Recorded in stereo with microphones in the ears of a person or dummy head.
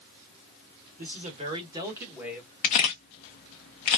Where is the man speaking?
40° right (ahead or behind), 1.3 m; by 2.5 s 5° left (ahead or behind), 1.4 m.